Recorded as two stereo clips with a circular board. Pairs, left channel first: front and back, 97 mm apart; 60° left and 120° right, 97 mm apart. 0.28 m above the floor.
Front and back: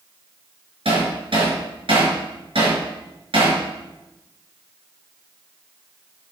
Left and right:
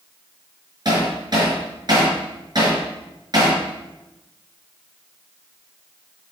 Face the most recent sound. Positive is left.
turn(degrees=-160)